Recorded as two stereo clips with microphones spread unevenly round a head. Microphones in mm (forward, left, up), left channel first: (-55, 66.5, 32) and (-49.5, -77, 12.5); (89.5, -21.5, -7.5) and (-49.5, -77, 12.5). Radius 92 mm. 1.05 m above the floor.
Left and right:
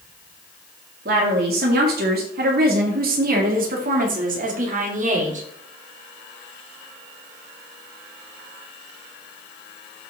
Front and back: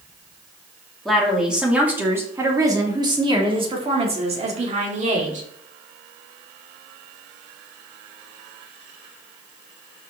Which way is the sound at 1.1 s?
65° right.